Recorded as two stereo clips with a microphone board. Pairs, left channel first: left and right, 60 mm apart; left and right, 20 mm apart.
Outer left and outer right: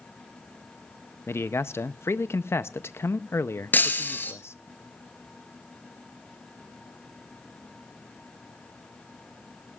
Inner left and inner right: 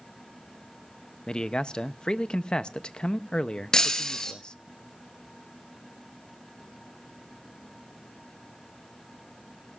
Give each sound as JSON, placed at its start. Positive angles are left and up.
{"t": 1.3, "sound": "a man speaking", "side_deg": 45, "distance_m": 0.5}
{"t": 3.7, "sound": "breaking glass", "side_deg": 35, "distance_m": 1.3}